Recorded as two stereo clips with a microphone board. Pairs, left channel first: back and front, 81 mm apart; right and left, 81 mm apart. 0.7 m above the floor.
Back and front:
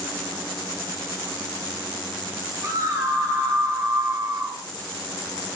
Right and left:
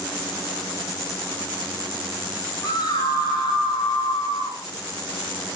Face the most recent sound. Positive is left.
turn(degrees=-55)